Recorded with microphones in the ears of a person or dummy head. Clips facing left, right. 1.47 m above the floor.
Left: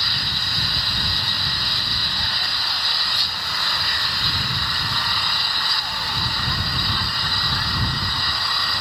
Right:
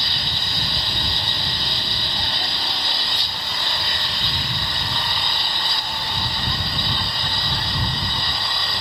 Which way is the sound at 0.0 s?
10° right (ahead or behind).